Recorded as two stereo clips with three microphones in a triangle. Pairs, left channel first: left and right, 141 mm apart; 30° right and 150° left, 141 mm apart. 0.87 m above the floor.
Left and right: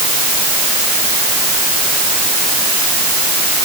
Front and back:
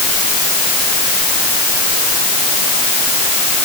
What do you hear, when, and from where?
Only background noise.